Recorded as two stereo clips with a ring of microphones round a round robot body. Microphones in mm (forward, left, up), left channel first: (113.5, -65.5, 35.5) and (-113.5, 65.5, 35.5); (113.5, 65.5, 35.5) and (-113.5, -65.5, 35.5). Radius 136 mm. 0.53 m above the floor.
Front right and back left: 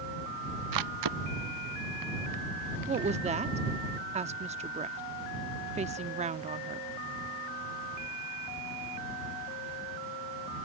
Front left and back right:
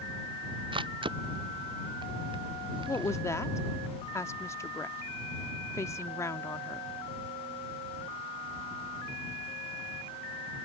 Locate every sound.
0.7 s a camera shutter: 135° left
2.9 s a woman speaking: 105° left